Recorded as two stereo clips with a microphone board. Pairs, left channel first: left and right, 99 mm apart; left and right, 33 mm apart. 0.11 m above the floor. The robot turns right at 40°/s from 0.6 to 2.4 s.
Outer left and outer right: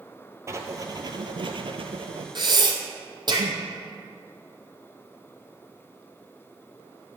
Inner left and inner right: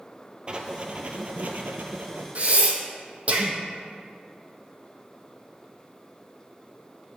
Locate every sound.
0.5 s writing: 150° right, 0.6 m; by 2.2 s 80° right, 0.6 m
2.4 s breathing: 50° right (ahead or behind), 0.8 m